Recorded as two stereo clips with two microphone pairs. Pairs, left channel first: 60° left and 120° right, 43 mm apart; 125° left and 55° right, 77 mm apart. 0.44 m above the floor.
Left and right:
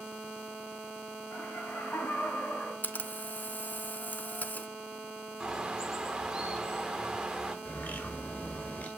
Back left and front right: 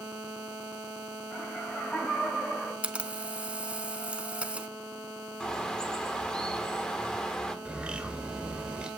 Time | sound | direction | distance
1.3 | laughter | 55° left | 3.5 m
2.8 | a camera shutter | 20° left | 0.6 m
5.4 | a bird | 160° right | 1.2 m
7.7 | a bird | 20° left | 1.6 m